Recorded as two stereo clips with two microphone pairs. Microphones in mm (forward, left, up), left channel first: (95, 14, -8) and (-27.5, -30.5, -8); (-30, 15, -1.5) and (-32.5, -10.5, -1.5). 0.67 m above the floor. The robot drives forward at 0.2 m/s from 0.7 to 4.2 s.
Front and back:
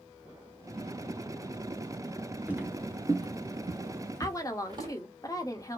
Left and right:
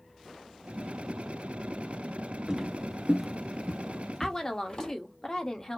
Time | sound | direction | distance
2.5 | footsteps | 100° right | 0.6 m
4.2 | a woman speaking | 30° left | 0.6 m